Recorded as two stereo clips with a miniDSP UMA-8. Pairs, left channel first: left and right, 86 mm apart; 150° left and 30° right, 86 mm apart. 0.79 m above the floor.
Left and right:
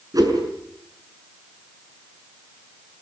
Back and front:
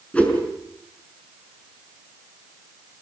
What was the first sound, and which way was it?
A whoosh, 135° right.